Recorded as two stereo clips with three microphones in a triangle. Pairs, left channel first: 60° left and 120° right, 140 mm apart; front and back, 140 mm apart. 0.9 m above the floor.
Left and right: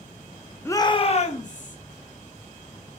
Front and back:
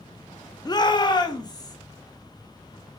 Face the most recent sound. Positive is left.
turn(degrees=60)